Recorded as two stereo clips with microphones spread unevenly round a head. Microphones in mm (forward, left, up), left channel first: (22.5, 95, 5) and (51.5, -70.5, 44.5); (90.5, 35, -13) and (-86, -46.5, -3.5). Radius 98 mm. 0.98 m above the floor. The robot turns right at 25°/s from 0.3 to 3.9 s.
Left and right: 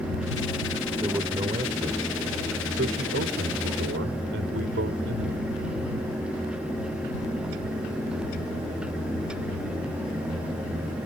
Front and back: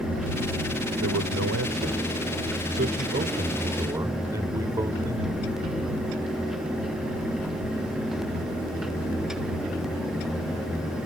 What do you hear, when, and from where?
1.0 s a man speaking: 155° right; by 5.5 s 85° right